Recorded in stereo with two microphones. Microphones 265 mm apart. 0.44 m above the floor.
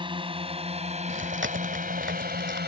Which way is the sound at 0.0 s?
20° right (ahead or behind).